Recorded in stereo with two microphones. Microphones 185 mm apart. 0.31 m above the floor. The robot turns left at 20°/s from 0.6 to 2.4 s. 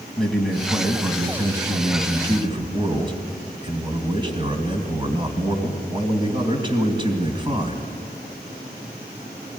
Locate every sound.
0.2 s a man speaking: 5° left, 2.5 m; by 7.8 s 30° right, 2.5 m